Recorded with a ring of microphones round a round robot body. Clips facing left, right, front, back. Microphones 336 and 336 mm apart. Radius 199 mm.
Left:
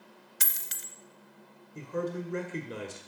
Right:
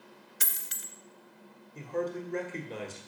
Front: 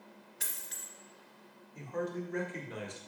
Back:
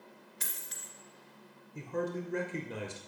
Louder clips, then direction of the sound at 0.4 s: Left 1 dB, back 1 dB; 95° left.